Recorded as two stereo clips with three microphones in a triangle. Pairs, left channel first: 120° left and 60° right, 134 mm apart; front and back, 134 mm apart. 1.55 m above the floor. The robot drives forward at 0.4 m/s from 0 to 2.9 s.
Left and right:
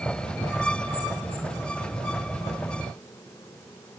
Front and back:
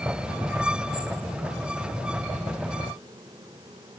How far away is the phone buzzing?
I don't hear a phone buzzing.